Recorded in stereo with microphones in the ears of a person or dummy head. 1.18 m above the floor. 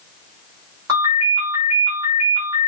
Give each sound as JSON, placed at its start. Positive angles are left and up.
{"t": 0.9, "sound": "a ringtone", "side_deg": -15, "distance_m": 1.8}